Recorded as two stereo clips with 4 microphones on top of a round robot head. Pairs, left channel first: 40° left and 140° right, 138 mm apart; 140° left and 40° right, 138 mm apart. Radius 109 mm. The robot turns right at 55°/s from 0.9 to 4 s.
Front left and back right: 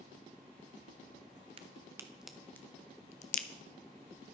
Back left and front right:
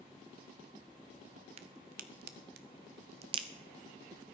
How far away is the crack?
About 0.5 m.